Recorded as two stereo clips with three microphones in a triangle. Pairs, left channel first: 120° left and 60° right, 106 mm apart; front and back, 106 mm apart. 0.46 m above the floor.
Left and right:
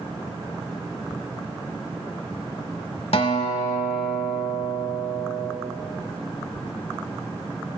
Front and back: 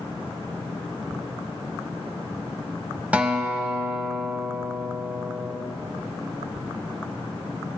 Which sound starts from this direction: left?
A guitar, at 3.1 s.